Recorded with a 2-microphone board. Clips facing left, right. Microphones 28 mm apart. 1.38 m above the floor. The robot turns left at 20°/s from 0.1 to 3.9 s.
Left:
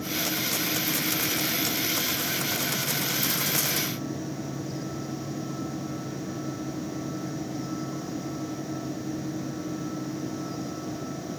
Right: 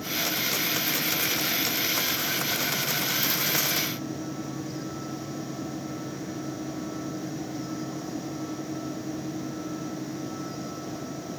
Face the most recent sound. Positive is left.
No sound to turn to.